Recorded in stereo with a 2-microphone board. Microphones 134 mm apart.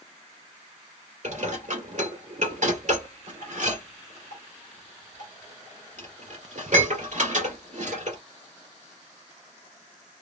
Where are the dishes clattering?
65° right (ahead or behind), 2 m.